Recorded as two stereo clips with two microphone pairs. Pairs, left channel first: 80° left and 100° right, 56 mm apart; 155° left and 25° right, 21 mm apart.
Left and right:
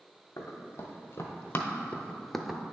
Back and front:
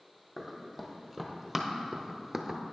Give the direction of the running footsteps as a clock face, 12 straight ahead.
10 o'clock.